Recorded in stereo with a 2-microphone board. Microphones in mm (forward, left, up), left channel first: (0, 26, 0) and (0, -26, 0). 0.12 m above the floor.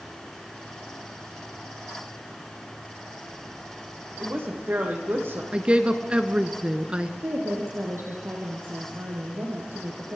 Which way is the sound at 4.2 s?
50° right (ahead or behind).